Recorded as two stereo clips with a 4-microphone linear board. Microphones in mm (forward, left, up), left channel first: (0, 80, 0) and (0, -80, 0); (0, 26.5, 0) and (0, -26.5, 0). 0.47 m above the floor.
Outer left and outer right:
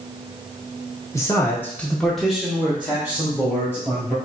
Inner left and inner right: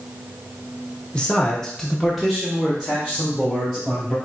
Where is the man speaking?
20° left (ahead or behind), 1.0 m; by 4.2 s 15° right (ahead or behind), 2 m.